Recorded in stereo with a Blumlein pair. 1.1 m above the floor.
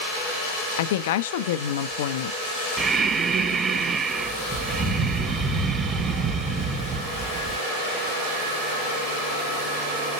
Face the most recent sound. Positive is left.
turn(degrees=-20)